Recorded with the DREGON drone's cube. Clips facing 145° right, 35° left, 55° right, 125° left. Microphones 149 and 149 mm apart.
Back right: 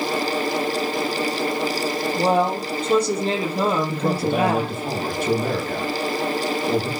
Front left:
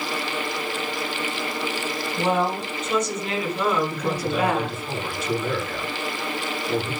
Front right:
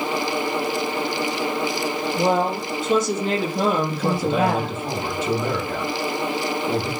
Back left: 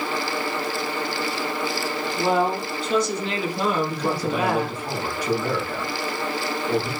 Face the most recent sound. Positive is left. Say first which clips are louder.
# back right 4 dB, front right 3 dB
turn(degrees=-120)